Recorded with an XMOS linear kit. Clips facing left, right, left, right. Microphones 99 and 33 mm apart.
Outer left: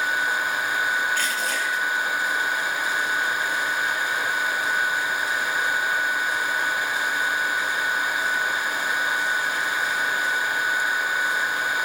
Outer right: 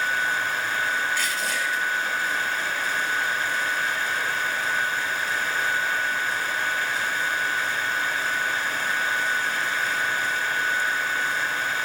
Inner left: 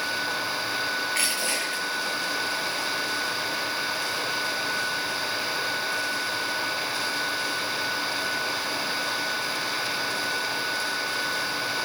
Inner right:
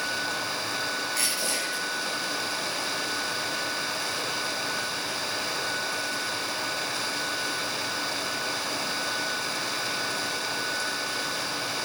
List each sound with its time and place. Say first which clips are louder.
1.1 s crushing: outer left 1 dB, inner left 3 dB; 45° left (ahead or behind), 8 m